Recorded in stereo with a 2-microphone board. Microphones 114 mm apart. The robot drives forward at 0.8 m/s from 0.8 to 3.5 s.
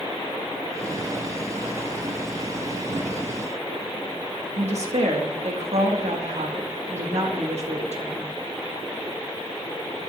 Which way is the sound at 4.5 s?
80° right.